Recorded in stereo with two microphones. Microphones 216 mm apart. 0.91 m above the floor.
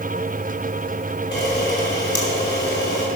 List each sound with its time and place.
1.3 s a camera shutter: 50° left (ahead or behind), 2.5 m